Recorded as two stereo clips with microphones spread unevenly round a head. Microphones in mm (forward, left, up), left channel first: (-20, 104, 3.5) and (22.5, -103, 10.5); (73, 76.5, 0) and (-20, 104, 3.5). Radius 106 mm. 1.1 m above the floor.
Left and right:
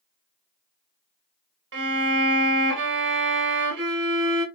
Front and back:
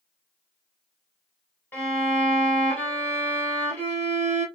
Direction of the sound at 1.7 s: 90° right.